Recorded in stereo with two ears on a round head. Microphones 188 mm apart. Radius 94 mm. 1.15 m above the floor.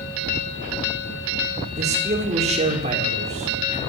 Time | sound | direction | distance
1.8 | a man speaking | 35° right (ahead or behind) | 4 m